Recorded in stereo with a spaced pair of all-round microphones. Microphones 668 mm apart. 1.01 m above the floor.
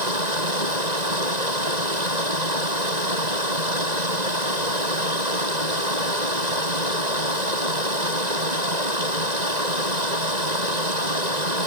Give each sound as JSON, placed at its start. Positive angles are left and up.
{"t": 0.0, "sound": "running water", "side_deg": -85}